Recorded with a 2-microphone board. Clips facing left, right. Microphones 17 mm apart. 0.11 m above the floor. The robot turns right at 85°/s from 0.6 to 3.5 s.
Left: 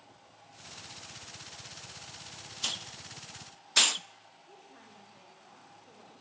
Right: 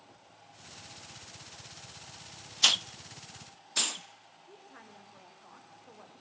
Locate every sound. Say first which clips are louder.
2.6 s a hiss: right 11 dB; 40° right (ahead or behind), 0.6 m; by 4.1 s 35° left (ahead or behind), 0.6 m
4.5 s a woman speaking: right 3 dB; 25° right (ahead or behind), 6 m